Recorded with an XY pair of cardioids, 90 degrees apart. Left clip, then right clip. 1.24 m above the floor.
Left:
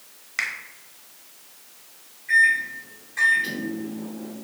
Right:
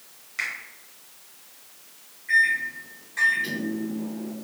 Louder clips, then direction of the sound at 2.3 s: Left 3 dB; 5° right.